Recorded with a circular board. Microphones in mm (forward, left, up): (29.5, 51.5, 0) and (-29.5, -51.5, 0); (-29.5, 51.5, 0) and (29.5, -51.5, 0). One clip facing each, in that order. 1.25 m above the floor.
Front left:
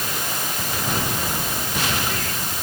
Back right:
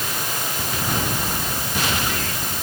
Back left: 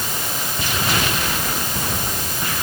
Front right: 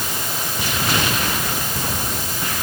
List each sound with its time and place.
Only background noise.